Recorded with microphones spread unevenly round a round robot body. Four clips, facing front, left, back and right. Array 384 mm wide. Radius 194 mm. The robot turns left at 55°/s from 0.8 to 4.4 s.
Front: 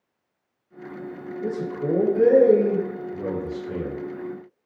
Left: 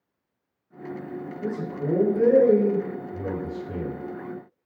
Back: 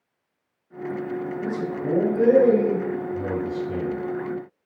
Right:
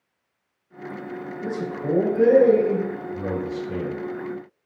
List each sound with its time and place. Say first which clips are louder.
1.4 s a man speaking: right 2 dB, front 4 dB; 125° left, 1.6 m; by 4.0 s 20° right, 1.6 m